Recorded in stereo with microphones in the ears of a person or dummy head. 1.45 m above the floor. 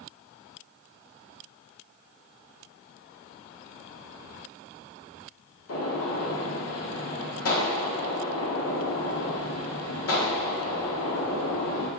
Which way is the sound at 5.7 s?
70° left (ahead or behind).